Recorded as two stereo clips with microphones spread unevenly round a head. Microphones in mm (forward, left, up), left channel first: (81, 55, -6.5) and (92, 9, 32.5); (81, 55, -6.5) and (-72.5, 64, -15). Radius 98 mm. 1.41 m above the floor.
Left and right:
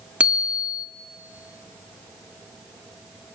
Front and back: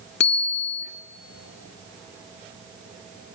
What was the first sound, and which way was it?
A bicycle bell, 20° right.